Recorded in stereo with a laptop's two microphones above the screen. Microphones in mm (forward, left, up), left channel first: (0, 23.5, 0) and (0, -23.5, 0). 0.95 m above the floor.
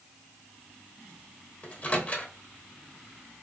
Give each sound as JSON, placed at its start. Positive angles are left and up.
{"t": 1.6, "sound": "a microwave", "side_deg": 35, "distance_m": 0.9}